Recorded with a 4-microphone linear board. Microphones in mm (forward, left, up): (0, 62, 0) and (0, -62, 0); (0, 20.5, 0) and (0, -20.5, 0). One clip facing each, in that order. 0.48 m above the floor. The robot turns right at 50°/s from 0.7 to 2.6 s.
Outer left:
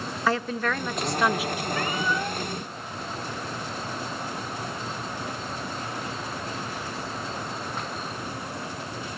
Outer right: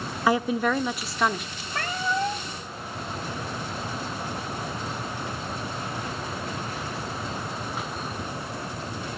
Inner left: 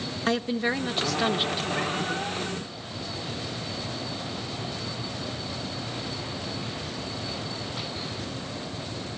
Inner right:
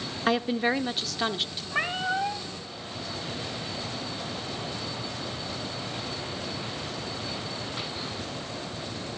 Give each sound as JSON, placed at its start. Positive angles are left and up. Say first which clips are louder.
{"t": 0.3, "sound": "a woman speaking", "louder": "outer right 4 dB, inner right 1 dB", "azimuth_deg": -25, "distance_m": 0.8}
{"t": 1.7, "sound": "a cat meowing", "louder": "outer right 2 dB, inner right 1 dB", "azimuth_deg": -65, "distance_m": 1.3}